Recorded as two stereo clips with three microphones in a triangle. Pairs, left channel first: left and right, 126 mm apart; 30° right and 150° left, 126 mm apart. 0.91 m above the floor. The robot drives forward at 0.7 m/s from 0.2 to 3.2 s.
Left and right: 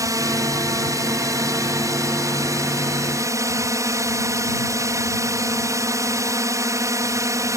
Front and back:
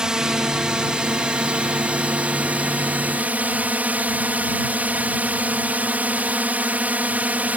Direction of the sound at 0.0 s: 130° right.